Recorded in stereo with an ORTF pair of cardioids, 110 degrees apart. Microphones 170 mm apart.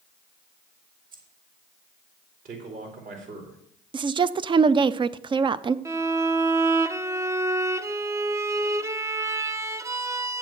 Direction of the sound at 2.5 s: 55° right.